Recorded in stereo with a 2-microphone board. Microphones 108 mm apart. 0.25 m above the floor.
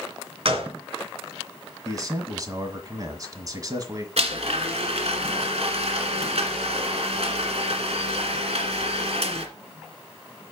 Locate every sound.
0.5 s a gunshot: 60° right (ahead or behind), 2.5 m
1.9 s a man speaking: 35° right (ahead or behind), 1.7 m
4.2 s a blender: 70° right (ahead or behind), 1.7 m